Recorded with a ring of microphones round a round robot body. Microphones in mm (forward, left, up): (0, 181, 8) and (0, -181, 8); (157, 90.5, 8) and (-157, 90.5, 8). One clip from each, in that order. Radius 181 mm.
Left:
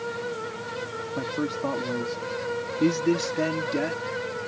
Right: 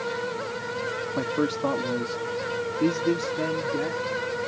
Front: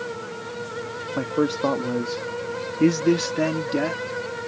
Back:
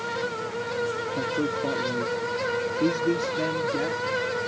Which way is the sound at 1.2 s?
30° right.